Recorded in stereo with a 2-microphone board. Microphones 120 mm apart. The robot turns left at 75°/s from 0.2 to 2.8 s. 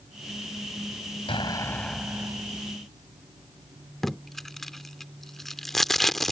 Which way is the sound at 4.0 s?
Centre (ahead or behind).